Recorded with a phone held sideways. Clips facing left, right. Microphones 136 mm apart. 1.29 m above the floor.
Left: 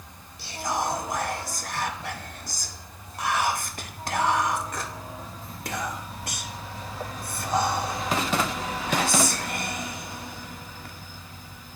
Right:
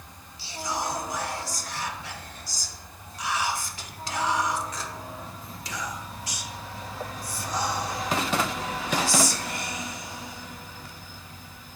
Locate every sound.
0.4 s whispering: 60° left (ahead or behind), 0.9 m